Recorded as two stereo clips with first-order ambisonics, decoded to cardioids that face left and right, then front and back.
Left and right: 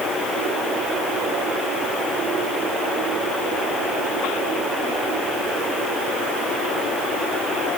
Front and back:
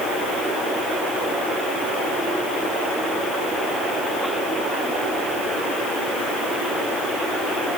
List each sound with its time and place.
Only background noise.